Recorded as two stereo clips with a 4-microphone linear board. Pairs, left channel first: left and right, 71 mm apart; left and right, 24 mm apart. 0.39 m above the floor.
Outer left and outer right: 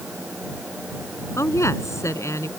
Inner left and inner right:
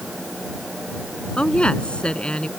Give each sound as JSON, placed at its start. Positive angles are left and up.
{"t": 1.4, "sound": "a woman speaking", "side_deg": 40}